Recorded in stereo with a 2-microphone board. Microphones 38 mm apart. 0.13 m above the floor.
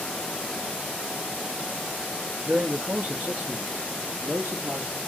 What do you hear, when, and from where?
2.5 s a man speaking: 40° right (ahead or behind), 1.5 m; by 5.0 s 65° right (ahead or behind), 3 m